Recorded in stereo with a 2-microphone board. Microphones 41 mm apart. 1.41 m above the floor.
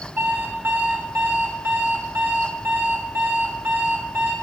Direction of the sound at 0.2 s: 60° right (ahead or behind).